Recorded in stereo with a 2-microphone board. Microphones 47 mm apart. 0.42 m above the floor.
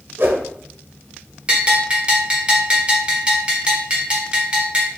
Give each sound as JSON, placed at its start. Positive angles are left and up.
{"t": 0.2, "sound": "a whoosh", "side_deg": -55, "distance_m": 0.8}
{"t": 1.5, "sound": "a bell", "side_deg": -25, "distance_m": 1.1}